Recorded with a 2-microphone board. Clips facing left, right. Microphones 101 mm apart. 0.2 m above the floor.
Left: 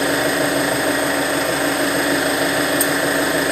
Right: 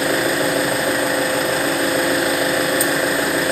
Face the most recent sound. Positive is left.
turn(degrees=0)  # may be behind; listen again after turning